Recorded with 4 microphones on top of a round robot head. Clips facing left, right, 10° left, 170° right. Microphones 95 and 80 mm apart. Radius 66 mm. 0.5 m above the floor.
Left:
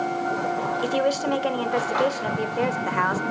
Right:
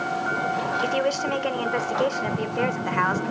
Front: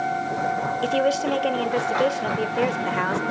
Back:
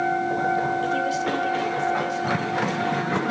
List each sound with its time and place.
0.8 s a woman speaking: 10° left, 2.5 m